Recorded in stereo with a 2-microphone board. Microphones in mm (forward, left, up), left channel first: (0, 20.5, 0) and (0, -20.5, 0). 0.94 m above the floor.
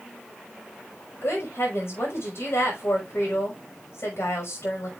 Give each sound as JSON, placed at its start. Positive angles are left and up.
{"t": 1.2, "sound": "a woman speaking", "side_deg": 75, "distance_m": 5.5}